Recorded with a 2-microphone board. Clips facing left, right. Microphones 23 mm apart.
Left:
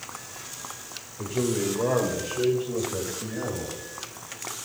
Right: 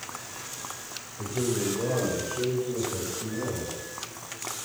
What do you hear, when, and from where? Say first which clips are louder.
1.2 s a man speaking: left 2 dB; 25° left (ahead or behind), 1.7 m